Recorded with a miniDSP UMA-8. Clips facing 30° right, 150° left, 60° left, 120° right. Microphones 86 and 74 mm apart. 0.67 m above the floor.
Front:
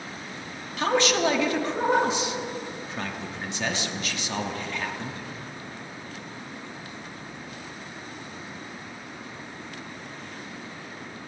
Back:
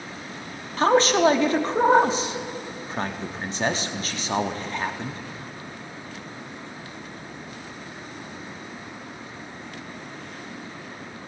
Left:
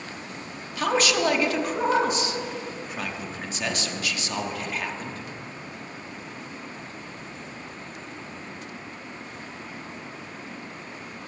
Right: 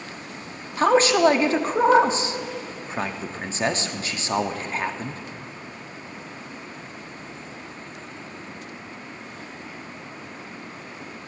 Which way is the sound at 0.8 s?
165° right.